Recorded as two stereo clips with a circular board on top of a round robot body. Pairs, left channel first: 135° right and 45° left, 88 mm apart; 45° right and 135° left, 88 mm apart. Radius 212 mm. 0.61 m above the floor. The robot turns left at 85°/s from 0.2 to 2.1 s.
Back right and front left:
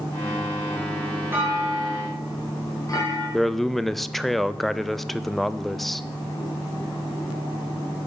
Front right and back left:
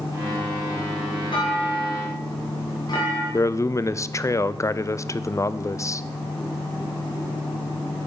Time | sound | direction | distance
1.3 | a clunk | 20° right | 2.5 m
3.3 | a man speaking | 50° right | 0.6 m